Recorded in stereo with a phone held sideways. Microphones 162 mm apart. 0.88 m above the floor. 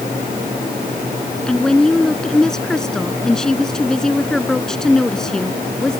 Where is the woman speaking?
5° left (ahead or behind).